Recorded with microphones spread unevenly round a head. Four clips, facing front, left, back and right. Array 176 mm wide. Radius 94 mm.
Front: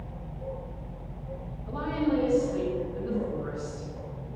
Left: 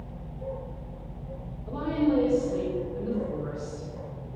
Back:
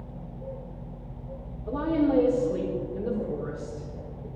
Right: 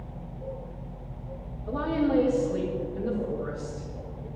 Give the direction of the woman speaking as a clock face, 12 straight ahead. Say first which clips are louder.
Even, back 4 dB; 6 o'clock.